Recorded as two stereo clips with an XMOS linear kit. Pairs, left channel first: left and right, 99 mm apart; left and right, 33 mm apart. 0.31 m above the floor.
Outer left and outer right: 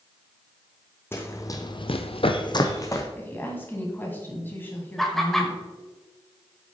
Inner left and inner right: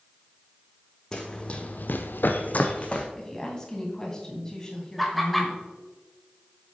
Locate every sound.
1.1 s running footsteps: 25° left (ahead or behind), 1.4 m; by 3.0 s 30° left (ahead or behind), 1.5 m
3.1 s a woman speaking: 20° left (ahead or behind), 2.5 m
5.0 s laughter: 5° left (ahead or behind), 1.0 m